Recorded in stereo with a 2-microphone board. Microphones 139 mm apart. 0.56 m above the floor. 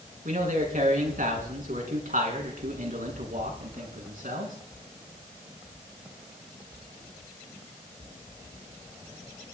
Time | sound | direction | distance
0.2 | a man speaking | 75° right (ahead or behind) | 5.5 m